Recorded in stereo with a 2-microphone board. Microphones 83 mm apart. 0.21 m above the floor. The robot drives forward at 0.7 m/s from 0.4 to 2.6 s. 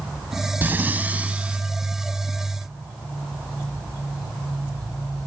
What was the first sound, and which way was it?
Breathing, 25° right (ahead or behind).